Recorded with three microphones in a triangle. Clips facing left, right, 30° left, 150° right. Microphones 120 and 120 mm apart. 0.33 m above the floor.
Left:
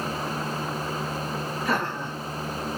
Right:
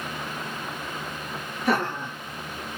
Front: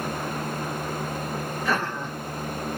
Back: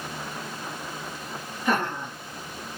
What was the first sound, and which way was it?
Laughter, 80° right.